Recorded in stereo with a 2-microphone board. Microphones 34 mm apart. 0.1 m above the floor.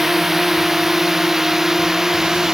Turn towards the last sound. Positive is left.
turn(degrees=-10)  # may be behind; listen again after turning